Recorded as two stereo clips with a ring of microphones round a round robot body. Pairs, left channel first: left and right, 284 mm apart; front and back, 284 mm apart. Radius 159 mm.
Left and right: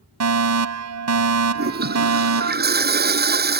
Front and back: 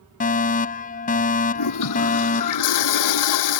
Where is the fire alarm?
65° right.